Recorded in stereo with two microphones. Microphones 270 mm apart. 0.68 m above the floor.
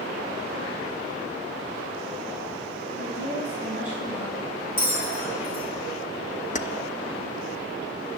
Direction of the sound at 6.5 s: 30° left (ahead or behind).